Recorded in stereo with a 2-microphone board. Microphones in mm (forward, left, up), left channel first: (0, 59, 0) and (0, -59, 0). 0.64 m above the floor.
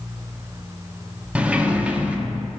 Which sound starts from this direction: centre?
A sliding door, at 1.4 s.